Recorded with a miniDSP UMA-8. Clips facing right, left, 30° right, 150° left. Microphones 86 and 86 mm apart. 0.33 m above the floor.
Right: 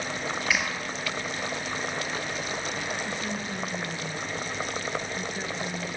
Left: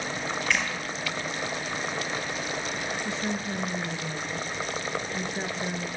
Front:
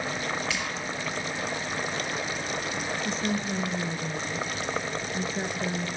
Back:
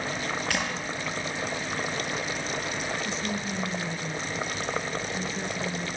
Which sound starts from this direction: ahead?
A woman speaking, at 3.0 s.